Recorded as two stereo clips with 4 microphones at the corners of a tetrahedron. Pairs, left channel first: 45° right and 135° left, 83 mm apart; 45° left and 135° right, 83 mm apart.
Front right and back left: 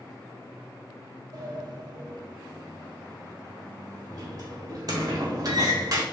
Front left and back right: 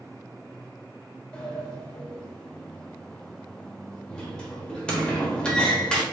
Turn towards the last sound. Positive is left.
turn(degrees=120)